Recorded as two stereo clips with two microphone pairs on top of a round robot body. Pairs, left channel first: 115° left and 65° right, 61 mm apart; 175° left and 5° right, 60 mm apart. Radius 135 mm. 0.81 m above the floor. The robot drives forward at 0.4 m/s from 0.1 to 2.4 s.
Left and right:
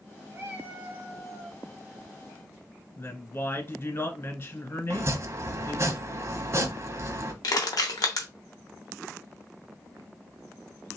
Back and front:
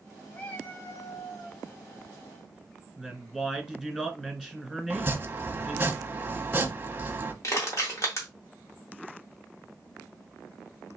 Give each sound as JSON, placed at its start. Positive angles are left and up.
{"t": 0.3, "sound": "a cat meowing", "azimuth_deg": -110, "distance_m": 0.6}
{"t": 3.0, "sound": "a woman speaking", "azimuth_deg": 90, "distance_m": 1.4}
{"t": 4.9, "sound": "chopping", "azimuth_deg": -40, "distance_m": 1.0}
{"t": 7.4, "sound": "crushing", "azimuth_deg": 140, "distance_m": 0.7}